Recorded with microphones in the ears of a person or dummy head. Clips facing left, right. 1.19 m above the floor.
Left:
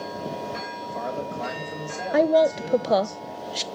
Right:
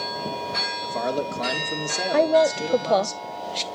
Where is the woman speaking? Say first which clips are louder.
Even; 10° left (ahead or behind), 0.5 m.